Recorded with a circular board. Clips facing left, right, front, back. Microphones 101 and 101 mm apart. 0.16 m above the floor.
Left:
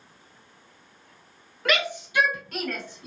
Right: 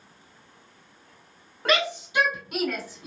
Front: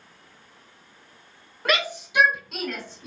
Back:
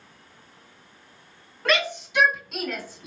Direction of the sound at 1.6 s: 75° right.